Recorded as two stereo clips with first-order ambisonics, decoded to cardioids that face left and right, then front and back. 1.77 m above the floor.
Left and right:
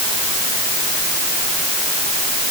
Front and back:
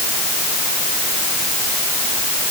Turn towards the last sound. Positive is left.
No sound to turn to.